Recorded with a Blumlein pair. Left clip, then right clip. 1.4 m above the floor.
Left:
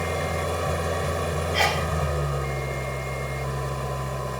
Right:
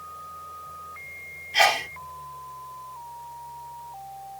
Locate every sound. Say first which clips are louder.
0.0 s an engine running: left 12 dB; 40° left
1.5 s a sneeze: right 4 dB; 15° right